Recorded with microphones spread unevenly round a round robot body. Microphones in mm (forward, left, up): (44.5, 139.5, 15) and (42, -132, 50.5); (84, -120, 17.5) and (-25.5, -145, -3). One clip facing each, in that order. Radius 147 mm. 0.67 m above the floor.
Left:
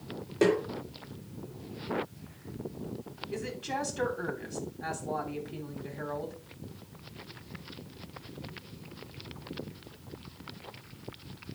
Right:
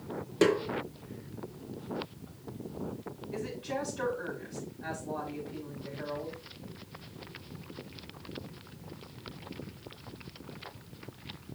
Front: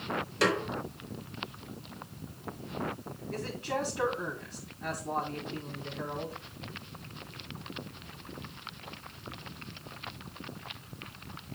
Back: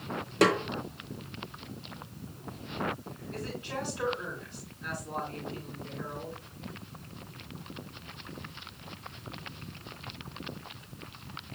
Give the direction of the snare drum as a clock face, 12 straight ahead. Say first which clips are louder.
Even, back 4 dB; 5 o'clock.